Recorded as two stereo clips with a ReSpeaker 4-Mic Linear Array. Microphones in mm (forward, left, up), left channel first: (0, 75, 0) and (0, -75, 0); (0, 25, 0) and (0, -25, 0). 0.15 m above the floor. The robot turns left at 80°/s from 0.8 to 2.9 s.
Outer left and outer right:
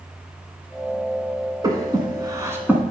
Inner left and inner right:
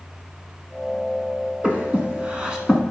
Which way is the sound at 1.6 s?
25° right (ahead or behind).